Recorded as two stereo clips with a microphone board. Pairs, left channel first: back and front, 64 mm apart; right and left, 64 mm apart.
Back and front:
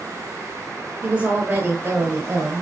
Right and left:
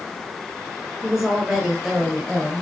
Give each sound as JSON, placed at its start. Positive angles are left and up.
{"t": 1.0, "sound": "a woman speaking", "azimuth_deg": 30, "distance_m": 1.2}